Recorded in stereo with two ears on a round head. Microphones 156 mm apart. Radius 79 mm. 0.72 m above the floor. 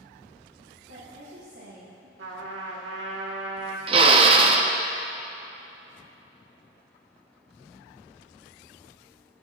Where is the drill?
30° right (ahead or behind), 0.6 m.